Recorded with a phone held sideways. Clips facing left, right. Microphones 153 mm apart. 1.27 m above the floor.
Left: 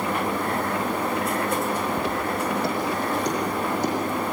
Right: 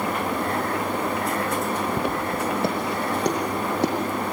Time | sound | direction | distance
2.0 | footsteps | 55° right (ahead or behind) | 2.5 m